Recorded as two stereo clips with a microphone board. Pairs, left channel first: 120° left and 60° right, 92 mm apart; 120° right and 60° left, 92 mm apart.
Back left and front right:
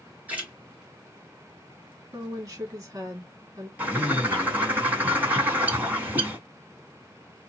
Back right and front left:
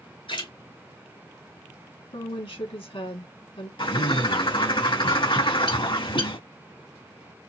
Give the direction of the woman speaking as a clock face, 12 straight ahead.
4 o'clock.